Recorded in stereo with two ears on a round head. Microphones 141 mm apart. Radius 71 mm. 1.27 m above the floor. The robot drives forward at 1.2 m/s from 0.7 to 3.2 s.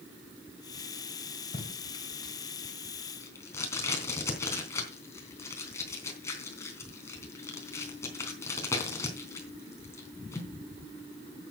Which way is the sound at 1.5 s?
35° left (ahead or behind).